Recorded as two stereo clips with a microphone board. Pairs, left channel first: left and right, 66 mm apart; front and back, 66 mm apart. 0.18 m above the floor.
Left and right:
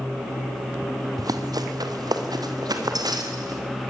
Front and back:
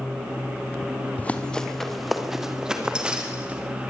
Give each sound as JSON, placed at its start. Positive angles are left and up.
{"t": 1.2, "sound": "running footsteps", "azimuth_deg": -65, "distance_m": 2.0}